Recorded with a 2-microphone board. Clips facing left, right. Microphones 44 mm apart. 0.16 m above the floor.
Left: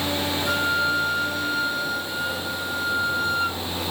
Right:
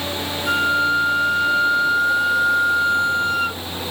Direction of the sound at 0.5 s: 70° right (ahead or behind).